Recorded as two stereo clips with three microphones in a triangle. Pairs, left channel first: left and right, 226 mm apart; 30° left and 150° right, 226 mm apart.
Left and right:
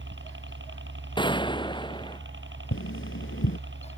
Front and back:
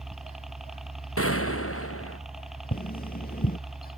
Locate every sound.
0.0 s a helicopter: 60° right
1.2 s a gunshot: 20° left
2.7 s tapping: 75° left